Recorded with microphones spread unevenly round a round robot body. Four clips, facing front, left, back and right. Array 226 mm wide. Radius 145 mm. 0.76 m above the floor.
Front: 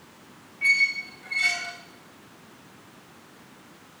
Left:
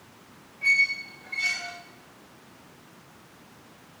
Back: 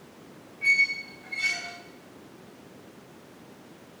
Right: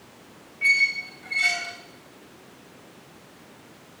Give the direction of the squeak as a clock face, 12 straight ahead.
2 o'clock.